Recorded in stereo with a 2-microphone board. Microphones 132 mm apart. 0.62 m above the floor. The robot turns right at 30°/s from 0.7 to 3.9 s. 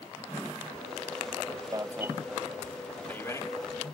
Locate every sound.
1.7 s an alarm: 25° right (ahead or behind); by 3.9 s 35° left (ahead or behind)